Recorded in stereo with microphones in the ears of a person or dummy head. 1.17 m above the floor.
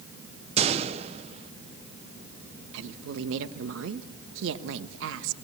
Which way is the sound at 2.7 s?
70° right (ahead or behind).